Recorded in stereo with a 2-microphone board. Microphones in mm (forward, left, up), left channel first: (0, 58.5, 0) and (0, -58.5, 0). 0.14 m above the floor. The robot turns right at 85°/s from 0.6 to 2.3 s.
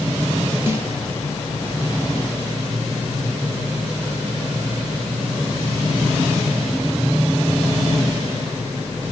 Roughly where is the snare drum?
Right.